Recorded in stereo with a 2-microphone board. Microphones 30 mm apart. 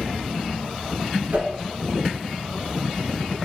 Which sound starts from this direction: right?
A whoosh, at 1.3 s.